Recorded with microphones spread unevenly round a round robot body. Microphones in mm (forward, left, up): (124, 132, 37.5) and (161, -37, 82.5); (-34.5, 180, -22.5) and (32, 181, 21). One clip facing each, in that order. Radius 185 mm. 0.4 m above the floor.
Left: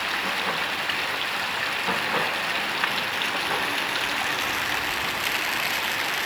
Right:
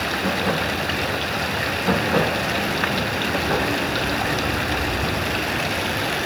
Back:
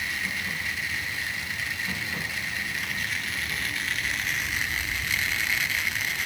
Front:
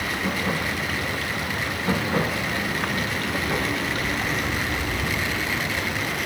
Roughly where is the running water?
Ahead right.